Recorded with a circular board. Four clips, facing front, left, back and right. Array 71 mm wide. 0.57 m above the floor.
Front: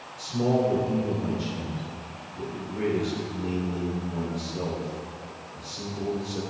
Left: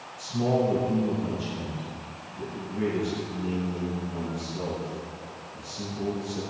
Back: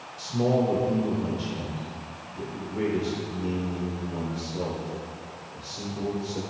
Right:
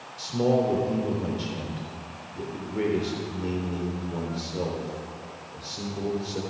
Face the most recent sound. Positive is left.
turn(degrees=-100)